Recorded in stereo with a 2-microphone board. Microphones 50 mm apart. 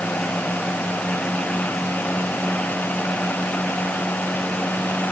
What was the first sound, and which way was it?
Only background noise.